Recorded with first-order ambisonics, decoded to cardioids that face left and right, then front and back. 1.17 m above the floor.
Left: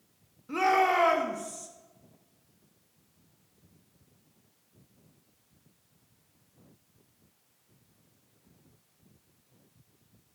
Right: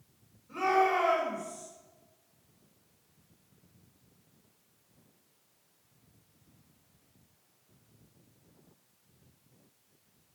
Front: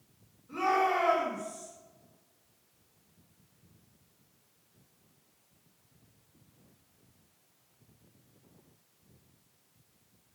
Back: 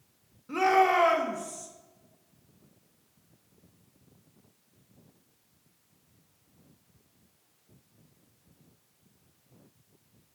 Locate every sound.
0.5 s a shout: 130° left, 1.4 m